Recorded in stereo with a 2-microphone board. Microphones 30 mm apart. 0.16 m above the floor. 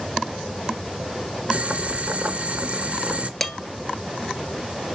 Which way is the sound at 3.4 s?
5° left (ahead or behind).